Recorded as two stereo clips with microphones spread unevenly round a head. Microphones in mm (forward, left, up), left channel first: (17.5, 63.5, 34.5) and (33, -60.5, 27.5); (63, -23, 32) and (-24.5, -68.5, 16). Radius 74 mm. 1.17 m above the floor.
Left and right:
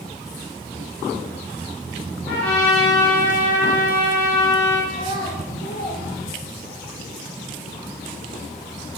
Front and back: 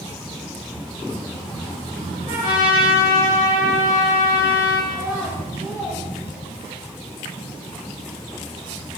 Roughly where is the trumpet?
Behind.